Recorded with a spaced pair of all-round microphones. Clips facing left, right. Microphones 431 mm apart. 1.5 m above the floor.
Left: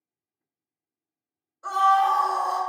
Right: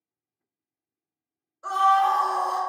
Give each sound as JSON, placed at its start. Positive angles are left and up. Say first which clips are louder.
{"t": 1.6, "sound": "a scream", "louder": "even", "side_deg": 0, "distance_m": 0.8}